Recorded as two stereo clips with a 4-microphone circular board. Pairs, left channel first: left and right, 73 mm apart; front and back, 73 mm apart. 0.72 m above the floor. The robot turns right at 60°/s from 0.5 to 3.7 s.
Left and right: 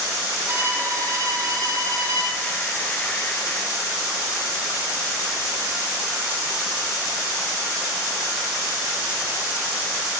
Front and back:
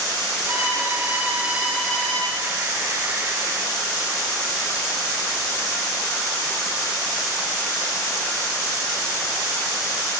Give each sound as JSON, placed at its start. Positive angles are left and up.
{"t": 0.5, "sound": "a violin", "azimuth_deg": -160, "distance_m": 7.5}